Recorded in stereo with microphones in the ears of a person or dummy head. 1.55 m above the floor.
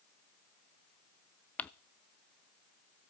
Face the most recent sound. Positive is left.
turn(degrees=10)  # may be behind; listen again after turning